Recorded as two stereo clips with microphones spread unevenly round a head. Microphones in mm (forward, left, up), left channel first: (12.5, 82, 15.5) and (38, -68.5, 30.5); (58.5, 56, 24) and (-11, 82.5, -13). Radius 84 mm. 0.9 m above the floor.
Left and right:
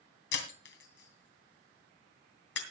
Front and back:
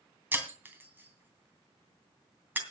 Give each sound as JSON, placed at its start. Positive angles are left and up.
{"t": 0.3, "sound": "breaking glass", "azimuth_deg": 85, "distance_m": 2.5}